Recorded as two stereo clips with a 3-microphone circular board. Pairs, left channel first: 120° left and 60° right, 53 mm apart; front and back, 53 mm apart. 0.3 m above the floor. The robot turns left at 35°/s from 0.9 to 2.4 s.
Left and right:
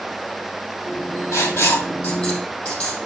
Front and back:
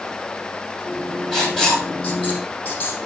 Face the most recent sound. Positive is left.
turn(degrees=60)